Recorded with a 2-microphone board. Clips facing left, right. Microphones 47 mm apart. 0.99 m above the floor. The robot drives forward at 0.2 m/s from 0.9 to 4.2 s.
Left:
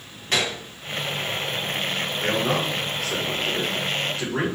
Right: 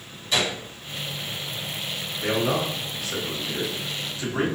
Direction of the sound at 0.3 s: 50° left (ahead or behind).